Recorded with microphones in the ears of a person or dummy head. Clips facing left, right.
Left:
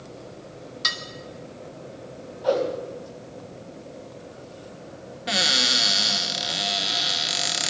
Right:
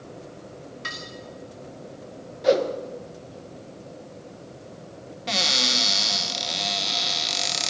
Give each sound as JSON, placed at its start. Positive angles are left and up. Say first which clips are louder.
{"t": 0.8, "sound": "dishes clattering", "louder": "left 2 dB", "side_deg": 60, "distance_m": 1.7}
{"t": 2.4, "sound": "a whoosh", "louder": "right 2 dB", "side_deg": -25, "distance_m": 2.0}
{"t": 5.3, "sound": "a cupboard door", "louder": "left 1 dB", "side_deg": 10, "distance_m": 1.5}